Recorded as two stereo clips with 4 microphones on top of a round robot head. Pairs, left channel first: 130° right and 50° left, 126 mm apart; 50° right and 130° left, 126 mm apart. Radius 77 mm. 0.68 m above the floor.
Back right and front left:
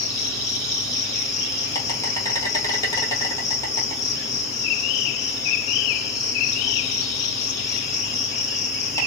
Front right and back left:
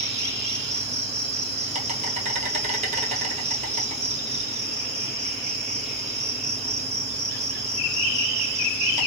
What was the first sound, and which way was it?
An insect, 165° left.